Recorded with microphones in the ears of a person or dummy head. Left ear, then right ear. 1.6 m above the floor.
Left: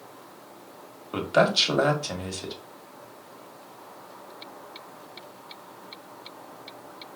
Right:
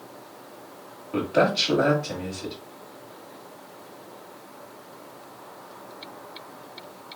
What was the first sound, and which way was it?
A man speaking, 55° left (ahead or behind).